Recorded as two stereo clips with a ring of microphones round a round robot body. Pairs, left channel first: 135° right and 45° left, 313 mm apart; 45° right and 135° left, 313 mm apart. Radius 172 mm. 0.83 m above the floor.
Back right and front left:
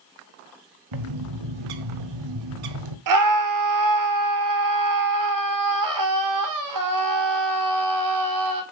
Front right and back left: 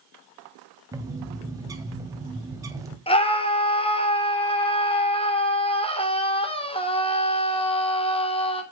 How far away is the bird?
About 1.7 m.